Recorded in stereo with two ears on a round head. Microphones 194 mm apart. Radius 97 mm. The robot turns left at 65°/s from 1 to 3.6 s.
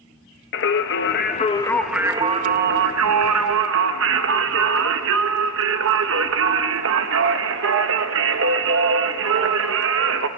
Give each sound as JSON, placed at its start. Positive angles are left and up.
{"t": 0.5, "sound": "singing", "azimuth_deg": 60, "distance_m": 1.0}